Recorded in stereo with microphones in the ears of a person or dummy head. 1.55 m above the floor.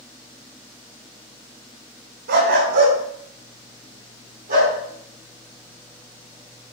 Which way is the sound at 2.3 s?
60° right (ahead or behind).